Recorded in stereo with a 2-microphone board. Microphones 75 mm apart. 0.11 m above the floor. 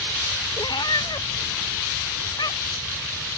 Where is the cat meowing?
75° left (ahead or behind); by 2.9 s 65° left (ahead or behind).